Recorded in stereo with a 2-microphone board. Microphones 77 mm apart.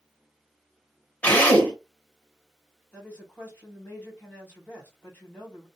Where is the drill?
20° left (ahead or behind), 1.3 m.